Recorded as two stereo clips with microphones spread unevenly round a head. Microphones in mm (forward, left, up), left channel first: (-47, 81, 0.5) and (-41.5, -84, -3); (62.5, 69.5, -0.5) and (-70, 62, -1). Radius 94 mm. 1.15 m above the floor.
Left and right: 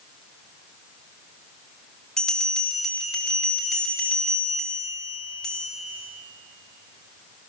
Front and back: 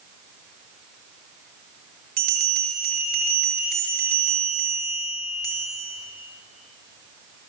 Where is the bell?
Straight behind, 5.5 m.